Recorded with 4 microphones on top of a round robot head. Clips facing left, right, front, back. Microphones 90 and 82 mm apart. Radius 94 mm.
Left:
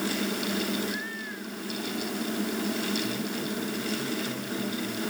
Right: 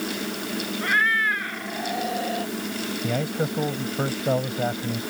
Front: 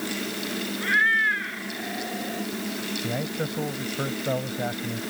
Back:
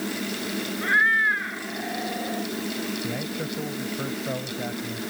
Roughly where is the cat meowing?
Right.